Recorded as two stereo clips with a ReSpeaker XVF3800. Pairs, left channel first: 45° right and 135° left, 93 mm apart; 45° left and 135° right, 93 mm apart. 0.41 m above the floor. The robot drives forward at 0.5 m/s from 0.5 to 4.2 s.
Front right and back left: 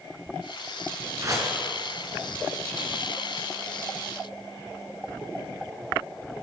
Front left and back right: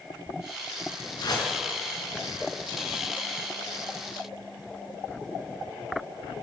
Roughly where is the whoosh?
Left.